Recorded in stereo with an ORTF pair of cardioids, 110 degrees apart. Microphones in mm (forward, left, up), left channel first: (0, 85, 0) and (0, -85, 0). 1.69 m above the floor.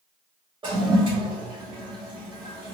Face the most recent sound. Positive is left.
turn(degrees=-30)